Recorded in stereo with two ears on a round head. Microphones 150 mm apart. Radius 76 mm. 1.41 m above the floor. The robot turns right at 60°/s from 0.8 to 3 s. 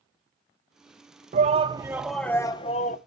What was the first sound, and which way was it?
A shout, 50° right.